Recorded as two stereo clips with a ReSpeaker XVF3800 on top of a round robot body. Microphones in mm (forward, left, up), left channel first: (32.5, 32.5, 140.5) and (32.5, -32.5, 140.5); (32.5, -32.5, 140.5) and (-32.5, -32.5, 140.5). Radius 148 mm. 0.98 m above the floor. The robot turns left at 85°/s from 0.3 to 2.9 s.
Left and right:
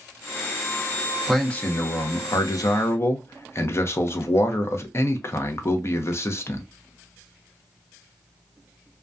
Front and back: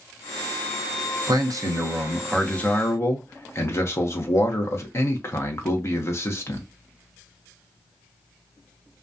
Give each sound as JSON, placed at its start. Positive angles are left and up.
{"t": 1.3, "sound": "a man speaking", "azimuth_deg": 180, "distance_m": 0.7}